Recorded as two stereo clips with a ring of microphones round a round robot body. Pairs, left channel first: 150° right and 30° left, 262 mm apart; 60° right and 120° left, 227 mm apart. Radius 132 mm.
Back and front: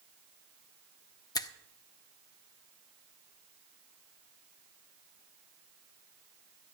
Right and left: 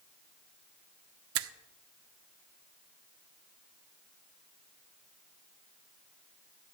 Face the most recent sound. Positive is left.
turn(degrees=135)